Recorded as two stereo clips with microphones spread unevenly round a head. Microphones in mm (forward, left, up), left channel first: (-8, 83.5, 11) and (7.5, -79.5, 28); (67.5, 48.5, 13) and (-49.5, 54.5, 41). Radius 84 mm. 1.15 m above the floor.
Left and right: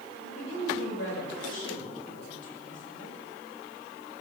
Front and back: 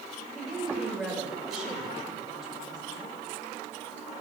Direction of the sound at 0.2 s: 90° left.